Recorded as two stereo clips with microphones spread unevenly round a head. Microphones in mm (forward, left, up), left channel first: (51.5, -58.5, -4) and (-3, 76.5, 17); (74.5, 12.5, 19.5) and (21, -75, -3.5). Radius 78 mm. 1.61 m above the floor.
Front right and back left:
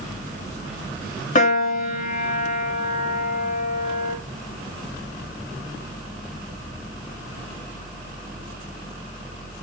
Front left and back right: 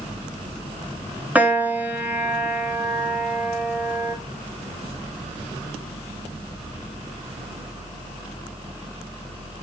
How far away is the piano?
About 1.4 m.